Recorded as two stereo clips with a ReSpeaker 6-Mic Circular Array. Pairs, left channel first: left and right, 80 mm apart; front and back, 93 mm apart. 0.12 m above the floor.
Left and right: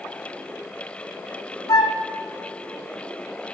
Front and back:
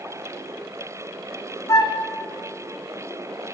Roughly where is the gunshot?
I don't hear a gunshot.